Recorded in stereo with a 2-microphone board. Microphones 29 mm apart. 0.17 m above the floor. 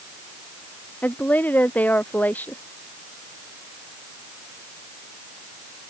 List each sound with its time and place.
1.0 s a woman speaking: 80° left